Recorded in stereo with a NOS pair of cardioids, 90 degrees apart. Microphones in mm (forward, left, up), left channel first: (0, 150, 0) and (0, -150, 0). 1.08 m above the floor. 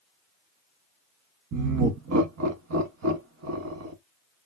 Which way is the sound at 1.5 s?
55° right.